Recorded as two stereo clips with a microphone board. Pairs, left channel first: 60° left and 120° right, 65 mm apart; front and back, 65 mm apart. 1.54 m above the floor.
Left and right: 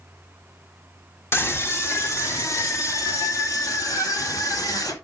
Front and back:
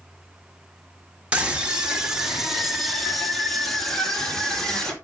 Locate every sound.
1.3 s a scream: 110° left, 2.5 m; by 4.9 s 80° left, 4 m